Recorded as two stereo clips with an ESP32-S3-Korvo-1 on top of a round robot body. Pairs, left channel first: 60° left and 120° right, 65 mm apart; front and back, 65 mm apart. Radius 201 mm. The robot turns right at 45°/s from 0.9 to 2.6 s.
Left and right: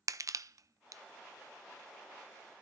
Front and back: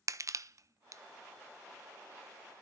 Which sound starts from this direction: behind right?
Crushing, at 0.1 s.